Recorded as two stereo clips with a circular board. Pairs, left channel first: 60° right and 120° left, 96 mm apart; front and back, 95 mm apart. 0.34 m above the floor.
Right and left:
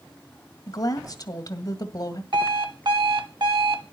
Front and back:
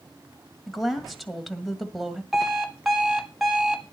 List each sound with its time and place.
0.7 s a woman speaking: 90° right, 1.9 m
2.3 s an alarm clock: 95° left, 1.4 m